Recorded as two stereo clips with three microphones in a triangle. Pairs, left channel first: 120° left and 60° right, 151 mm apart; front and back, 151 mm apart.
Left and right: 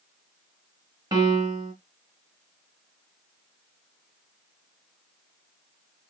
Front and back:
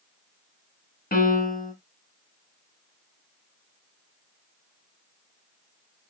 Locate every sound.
1.1 s a piano: 5° left, 1.6 m